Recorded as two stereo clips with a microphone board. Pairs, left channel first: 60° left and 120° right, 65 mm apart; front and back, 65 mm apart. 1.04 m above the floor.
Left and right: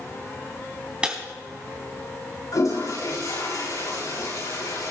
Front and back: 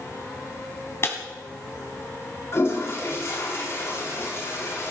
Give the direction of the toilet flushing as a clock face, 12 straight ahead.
11 o'clock.